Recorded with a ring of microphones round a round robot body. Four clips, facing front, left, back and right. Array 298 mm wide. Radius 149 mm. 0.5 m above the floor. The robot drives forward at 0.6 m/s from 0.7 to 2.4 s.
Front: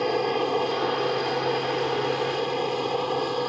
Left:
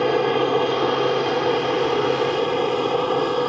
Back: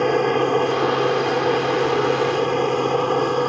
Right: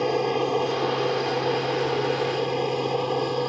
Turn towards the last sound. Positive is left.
turn(degrees=145)